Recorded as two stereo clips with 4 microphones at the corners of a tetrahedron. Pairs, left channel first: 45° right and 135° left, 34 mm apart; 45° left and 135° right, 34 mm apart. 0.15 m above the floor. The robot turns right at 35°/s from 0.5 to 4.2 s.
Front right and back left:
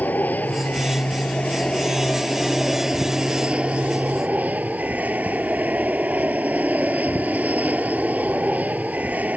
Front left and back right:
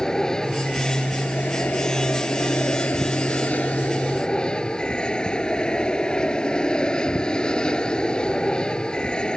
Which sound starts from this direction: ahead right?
An aircraft, at 0.0 s.